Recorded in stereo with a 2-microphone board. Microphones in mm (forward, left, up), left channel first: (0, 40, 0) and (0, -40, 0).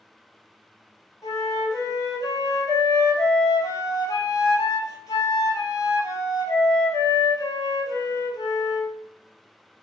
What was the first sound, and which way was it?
A flute, 45° left (ahead or behind).